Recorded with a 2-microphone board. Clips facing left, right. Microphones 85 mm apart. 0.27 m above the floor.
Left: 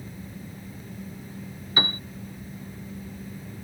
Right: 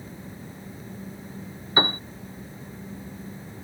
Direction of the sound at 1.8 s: 30° right (ahead or behind).